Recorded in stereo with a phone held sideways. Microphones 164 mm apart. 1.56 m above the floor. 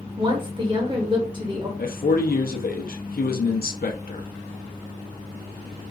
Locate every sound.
0.2 s a woman speaking: 30° right (ahead or behind), 0.7 m
1.8 s a man speaking: 70° left (ahead or behind), 0.6 m